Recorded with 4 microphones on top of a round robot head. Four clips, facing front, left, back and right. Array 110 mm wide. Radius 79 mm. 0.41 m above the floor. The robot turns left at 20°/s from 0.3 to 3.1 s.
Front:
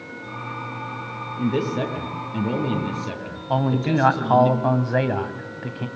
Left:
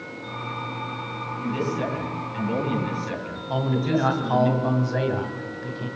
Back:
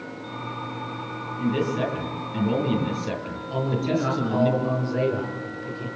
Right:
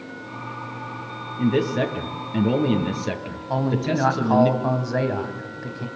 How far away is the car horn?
I don't hear a car horn.